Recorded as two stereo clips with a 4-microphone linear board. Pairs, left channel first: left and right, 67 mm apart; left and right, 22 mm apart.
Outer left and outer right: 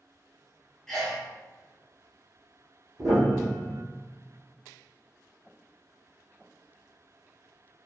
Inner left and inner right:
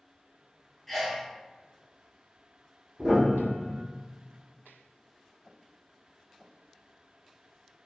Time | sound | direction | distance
0.9 | a sneeze | 10° left (ahead or behind) | 1.0 m
3.0 | a piano | 55° right (ahead or behind) | 1.4 m